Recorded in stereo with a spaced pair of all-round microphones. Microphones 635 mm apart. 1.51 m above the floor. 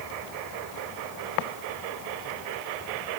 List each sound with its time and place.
Only background noise.